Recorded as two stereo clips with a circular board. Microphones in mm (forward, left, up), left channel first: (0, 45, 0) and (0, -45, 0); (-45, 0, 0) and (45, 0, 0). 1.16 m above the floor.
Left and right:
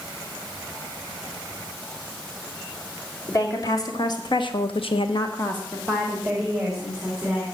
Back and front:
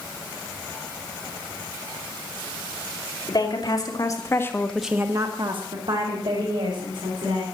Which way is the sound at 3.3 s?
140° left.